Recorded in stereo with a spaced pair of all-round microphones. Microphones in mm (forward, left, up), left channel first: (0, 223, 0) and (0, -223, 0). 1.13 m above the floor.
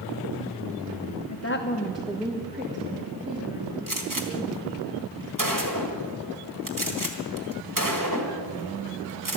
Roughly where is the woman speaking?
Left.